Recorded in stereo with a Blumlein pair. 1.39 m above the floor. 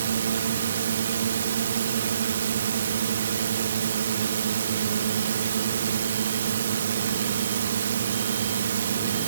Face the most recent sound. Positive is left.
turn(degrees=-65)